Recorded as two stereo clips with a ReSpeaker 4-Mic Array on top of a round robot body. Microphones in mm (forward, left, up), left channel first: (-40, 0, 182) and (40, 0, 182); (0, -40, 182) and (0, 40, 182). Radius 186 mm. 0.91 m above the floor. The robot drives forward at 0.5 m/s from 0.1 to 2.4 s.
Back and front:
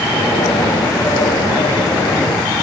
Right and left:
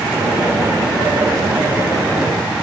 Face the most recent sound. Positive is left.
No sound to turn to.